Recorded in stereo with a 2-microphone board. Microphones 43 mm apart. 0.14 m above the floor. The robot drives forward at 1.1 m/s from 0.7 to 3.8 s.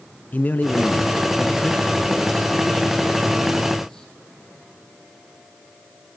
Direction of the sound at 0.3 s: 40° left (ahead or behind).